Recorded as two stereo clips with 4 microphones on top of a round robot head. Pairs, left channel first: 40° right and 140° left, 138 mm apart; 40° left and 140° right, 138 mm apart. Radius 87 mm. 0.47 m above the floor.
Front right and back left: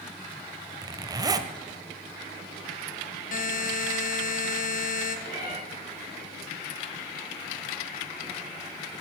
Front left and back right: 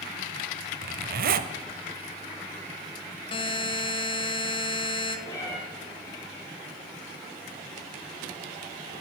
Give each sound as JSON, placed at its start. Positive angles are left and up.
{"t": 0.8, "sound": "a zipper", "azimuth_deg": -155, "distance_m": 0.9}
{"t": 3.3, "sound": "a buzzer", "azimuth_deg": -15, "distance_m": 1.4}
{"t": 5.3, "sound": "a cat meowing", "azimuth_deg": -25, "distance_m": 6.0}